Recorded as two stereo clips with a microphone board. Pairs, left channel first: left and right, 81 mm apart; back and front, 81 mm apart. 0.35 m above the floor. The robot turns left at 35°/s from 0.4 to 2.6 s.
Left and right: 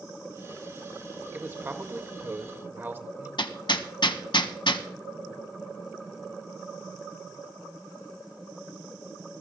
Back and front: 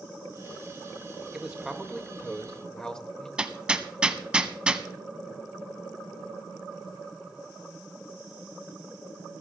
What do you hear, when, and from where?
1.3 s a man speaking: 65° right, 1.3 m; by 3.3 s 110° right, 1.3 m
3.4 s hammering: 80° left, 0.9 m